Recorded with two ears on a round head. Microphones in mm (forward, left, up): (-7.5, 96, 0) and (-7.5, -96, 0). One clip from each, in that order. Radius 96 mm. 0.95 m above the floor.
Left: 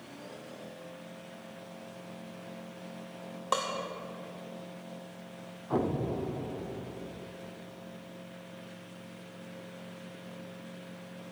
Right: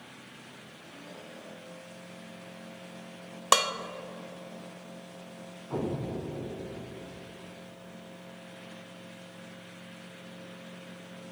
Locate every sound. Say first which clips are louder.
3.5 s dishes clattering: right 7 dB; 65° right (ahead or behind), 0.6 m
5.7 s an explosion: left 3 dB; 65° left (ahead or behind), 0.9 m